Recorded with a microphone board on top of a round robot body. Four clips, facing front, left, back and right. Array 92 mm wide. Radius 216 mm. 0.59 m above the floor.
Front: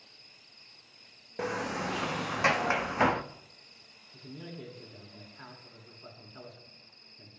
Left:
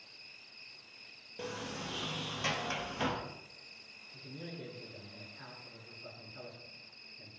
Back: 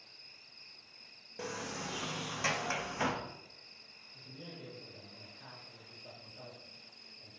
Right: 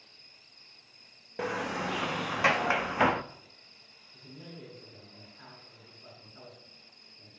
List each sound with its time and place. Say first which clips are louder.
0.0 s an insect: left 3 dB, front 1 dB; 100° left, 3 m
1.4 s a sliding door: right 9 dB, front 8 dB; 50° right, 0.8 m
4.1 s a man speaking: left 2 dB, front 6 dB; straight ahead, 9 m